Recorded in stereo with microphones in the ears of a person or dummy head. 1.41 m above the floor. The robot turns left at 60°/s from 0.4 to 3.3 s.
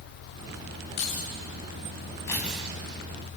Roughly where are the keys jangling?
Left.